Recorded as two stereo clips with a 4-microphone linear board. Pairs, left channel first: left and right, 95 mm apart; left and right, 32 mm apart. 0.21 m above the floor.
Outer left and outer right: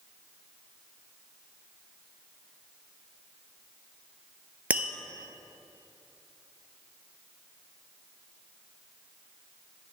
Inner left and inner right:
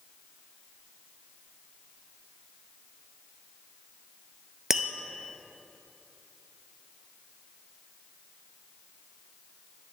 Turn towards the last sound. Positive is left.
turn(degrees=-15)  # may be behind; listen again after turning